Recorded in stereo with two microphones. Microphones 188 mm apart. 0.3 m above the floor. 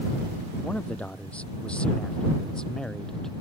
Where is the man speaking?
5° left (ahead or behind).